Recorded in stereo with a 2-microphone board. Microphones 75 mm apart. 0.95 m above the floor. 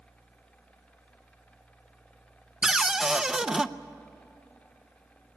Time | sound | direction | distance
2.6 | a cupboard door | 10° right (ahead or behind) | 0.5 m